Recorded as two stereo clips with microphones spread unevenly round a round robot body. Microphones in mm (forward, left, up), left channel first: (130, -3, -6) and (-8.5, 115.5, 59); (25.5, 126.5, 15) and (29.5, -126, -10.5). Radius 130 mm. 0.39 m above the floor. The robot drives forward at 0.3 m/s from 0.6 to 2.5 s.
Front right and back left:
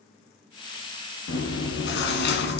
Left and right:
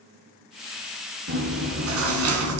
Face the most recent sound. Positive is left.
turn(degrees=-65)